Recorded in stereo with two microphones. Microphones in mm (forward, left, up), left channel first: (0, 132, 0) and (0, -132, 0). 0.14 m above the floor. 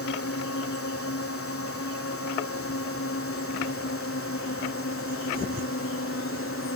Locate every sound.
0.0 s a drone: 60° left (ahead or behind); by 6.8 s 55° left (ahead or behind)